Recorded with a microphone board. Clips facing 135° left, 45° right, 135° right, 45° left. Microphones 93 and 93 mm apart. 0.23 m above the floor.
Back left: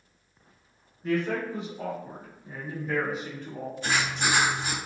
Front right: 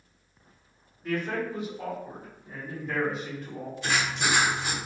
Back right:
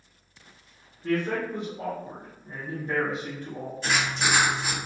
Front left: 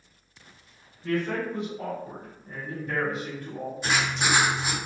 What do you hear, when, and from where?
1.0 s a man speaking: straight behind, 2.0 m; by 3.7 s 110° right, 1.2 m
3.8 s writing: 115° left, 1.7 m